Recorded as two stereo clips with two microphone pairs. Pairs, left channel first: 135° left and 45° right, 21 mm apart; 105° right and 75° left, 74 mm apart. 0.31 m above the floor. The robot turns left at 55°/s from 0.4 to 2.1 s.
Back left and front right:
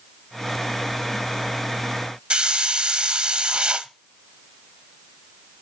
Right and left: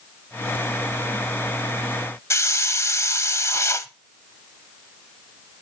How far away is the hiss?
About 0.6 m.